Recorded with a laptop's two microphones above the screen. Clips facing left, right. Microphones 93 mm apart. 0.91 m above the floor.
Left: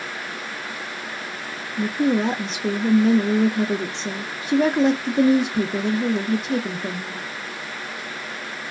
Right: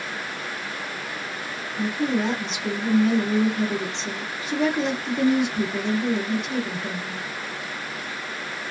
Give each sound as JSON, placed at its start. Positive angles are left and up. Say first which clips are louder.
{"t": 1.8, "sound": "a woman speaking", "louder": "left 4 dB", "side_deg": 40, "distance_m": 0.5}